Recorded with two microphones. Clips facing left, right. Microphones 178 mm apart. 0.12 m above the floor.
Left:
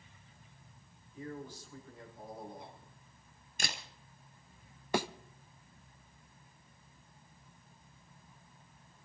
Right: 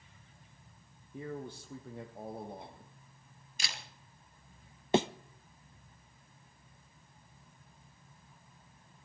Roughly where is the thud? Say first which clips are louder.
Right 5 dB; right.